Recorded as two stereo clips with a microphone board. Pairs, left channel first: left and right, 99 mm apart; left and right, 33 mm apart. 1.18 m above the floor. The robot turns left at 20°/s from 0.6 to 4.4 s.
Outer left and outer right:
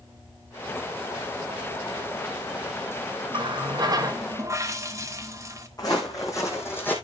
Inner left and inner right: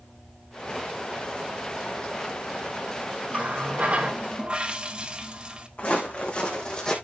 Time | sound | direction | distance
3.3 | a running tap | 50° right (ahead or behind) | 1.1 m
5.8 | footsteps | 40° left (ahead or behind) | 3.5 m